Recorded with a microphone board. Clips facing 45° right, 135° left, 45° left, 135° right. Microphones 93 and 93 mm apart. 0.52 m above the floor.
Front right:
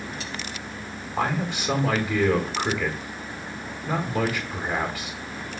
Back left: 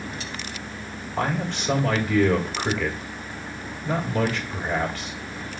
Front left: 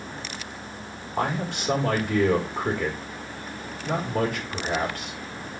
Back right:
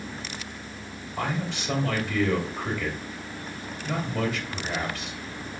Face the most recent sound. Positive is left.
turn(degrees=35)